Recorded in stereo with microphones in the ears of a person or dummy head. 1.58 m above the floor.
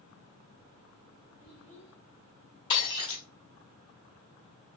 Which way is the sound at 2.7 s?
25° left (ahead or behind).